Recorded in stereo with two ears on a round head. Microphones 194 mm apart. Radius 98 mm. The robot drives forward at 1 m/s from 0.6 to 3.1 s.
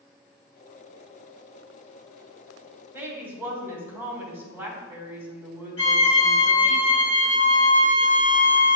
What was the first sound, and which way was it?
A woman speaking, 10° right (ahead or behind).